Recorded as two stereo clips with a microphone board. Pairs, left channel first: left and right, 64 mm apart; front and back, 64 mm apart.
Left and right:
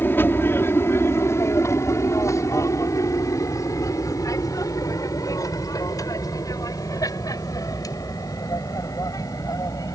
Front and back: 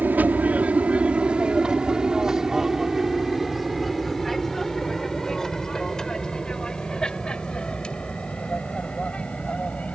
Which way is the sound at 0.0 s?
130° left.